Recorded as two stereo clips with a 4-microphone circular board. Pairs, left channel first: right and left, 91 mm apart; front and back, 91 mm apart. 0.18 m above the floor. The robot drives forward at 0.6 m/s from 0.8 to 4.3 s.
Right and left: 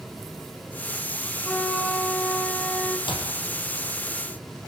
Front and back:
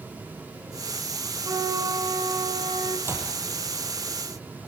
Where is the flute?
170° right, 1.5 m; by 3.0 s 175° right, 2 m.